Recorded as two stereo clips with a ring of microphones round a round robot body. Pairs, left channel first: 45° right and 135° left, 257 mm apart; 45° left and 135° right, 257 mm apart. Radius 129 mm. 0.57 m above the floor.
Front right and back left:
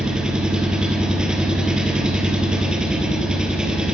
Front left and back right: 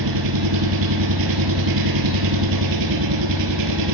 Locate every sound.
0.0 s an engine running: 140° right, 3 m